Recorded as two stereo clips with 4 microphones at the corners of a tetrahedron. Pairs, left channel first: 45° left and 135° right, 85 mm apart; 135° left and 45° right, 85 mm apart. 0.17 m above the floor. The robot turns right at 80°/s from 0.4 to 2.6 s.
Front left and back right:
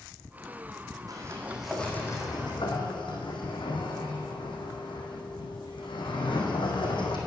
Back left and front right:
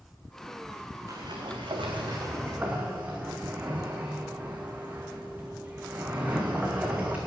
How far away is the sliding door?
About 2 m.